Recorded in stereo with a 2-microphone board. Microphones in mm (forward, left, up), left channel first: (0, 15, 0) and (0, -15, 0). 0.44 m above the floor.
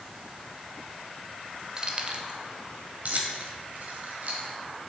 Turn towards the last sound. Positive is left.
turn(degrees=-60)  # may be behind; listen again after turning